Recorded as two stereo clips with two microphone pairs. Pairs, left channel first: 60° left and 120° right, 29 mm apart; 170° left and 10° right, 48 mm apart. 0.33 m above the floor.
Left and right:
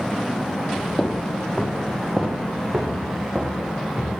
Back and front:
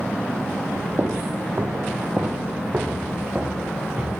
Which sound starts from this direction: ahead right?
Footsteps, at 1.0 s.